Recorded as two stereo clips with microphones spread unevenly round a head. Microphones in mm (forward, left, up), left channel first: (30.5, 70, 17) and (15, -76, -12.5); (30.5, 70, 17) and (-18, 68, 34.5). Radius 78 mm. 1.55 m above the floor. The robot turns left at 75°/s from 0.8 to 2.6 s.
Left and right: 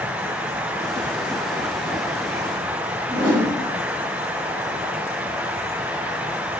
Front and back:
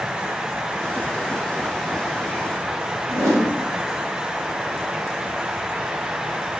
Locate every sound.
3.1 s a whoosh: 175° right, 2.0 m